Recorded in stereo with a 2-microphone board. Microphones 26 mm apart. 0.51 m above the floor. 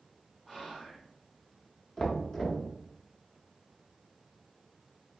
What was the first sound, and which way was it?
Whispering, 25° left (ahead or behind).